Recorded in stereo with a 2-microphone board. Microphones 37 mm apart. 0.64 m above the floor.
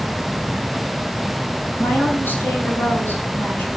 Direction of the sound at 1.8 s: 65° left (ahead or behind).